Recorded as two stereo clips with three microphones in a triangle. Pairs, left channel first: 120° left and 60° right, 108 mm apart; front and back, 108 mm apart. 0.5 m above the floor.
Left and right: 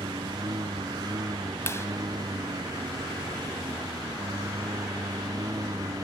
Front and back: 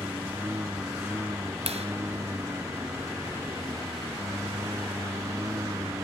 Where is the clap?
175° right.